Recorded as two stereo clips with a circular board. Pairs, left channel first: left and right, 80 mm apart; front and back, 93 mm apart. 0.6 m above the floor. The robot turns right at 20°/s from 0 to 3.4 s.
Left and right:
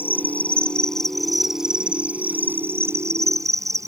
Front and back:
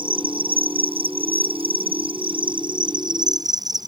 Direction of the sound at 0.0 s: 155° left.